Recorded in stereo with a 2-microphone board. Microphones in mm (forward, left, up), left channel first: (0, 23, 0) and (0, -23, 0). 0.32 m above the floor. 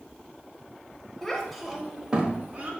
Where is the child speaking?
10° left (ahead or behind), 0.9 m; by 2.7 s 40° right (ahead or behind), 0.8 m.